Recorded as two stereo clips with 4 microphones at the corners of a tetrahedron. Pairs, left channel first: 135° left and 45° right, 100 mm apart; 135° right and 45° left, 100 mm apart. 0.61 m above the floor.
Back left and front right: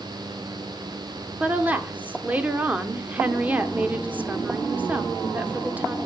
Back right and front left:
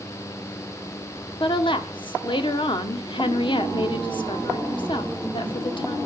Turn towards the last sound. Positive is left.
turn(degrees=-115)